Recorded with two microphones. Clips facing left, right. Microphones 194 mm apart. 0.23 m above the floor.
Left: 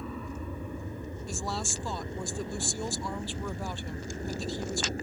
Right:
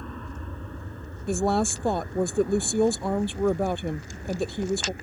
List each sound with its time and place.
0.0 s an aircraft: 5° left (ahead or behind); by 5.0 s 40° left (ahead or behind)
1.3 s a woman speaking: 60° right (ahead or behind)